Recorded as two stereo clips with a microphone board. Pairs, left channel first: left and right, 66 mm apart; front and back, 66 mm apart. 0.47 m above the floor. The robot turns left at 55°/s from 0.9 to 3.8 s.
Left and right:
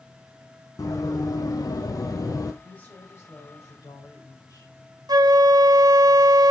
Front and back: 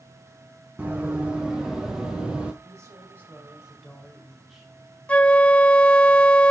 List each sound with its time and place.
0.8 s running footsteps: 115° left, 1.6 m; by 2.5 s 105° left, 1.0 m
2.6 s a woman speaking: 160° left, 2.5 m; by 4.7 s 95° left, 2.5 m
5.1 s a flute: 70° right, 0.5 m